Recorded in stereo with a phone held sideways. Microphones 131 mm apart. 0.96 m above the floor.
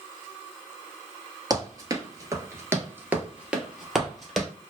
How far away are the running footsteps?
About 1.1 m.